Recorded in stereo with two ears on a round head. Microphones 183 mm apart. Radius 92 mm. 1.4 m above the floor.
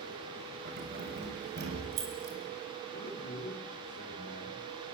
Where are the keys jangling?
55° right (ahead or behind), 6 m.